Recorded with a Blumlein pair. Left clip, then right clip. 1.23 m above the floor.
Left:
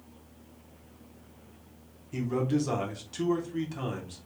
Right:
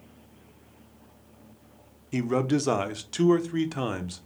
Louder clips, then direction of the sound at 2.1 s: Right 4 dB; 30° right.